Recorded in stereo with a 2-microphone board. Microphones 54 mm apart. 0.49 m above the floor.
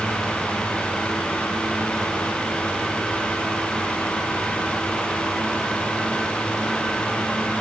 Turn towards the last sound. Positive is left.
No sound to turn to.